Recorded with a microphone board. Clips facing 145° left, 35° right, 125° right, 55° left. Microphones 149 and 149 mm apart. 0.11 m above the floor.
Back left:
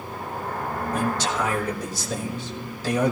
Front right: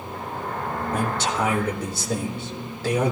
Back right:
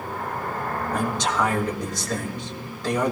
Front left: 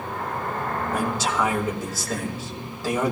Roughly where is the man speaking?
Ahead right.